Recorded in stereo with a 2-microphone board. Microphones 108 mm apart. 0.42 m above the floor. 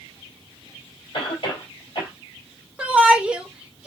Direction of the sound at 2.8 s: 10° right (ahead or behind).